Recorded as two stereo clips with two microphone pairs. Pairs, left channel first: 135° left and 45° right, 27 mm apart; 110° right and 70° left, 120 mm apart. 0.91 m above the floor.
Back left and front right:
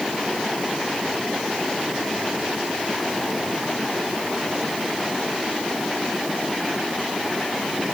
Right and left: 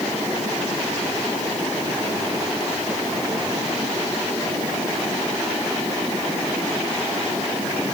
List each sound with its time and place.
Only background noise.